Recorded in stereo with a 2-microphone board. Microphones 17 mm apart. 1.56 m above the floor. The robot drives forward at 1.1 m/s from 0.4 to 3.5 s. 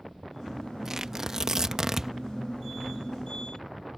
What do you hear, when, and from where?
0.8 s tearing paper: 25° right (ahead or behind); by 2.1 s 30° right (ahead or behind)